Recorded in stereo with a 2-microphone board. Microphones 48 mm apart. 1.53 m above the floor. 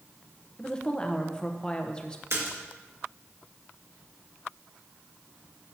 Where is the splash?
65° right (ahead or behind), 2 m.